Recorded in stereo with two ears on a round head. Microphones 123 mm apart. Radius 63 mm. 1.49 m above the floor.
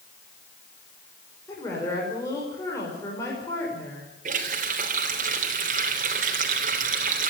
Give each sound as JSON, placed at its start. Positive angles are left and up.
{"t": 1.5, "sound": "a woman speaking", "side_deg": 20, "distance_m": 5.0}
{"t": 4.2, "sound": "a running tap", "side_deg": -65, "distance_m": 3.5}